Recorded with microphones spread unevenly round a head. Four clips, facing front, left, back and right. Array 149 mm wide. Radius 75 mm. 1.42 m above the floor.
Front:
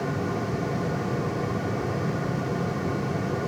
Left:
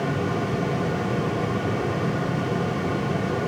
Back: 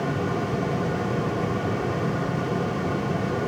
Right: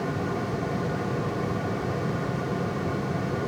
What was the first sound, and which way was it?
Only background noise.